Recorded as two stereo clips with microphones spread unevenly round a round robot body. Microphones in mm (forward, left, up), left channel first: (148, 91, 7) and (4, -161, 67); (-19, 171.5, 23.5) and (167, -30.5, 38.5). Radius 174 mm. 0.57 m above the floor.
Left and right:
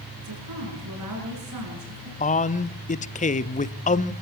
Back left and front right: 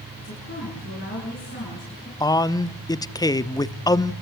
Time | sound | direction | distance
0.2 | a woman speaking | 165° right | 7.5 m
2.2 | a man speaking | 70° left | 0.8 m